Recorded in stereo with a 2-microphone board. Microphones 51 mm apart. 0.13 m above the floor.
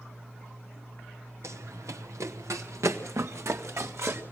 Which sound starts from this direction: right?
Running footsteps, at 1.4 s.